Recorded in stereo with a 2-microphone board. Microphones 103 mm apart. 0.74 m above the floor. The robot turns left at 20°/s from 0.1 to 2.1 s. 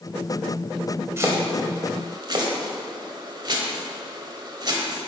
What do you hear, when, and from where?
1.2 s chopping: 30° right (ahead or behind), 1.6 m; by 5.0 s 45° right (ahead or behind), 1.6 m